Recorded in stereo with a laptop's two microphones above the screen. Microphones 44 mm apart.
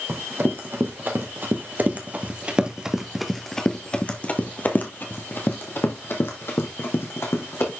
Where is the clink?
No clink in this recording.